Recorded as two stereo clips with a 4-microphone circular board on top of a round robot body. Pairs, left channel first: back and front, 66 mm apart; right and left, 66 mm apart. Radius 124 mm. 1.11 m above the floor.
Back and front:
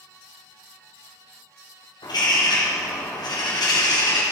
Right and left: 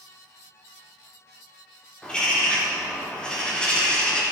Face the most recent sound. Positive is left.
turn(degrees=-170)